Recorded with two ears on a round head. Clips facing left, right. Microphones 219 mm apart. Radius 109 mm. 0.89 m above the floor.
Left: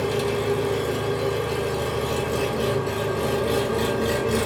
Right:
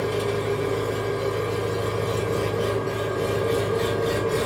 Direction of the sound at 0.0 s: 70° left (ahead or behind).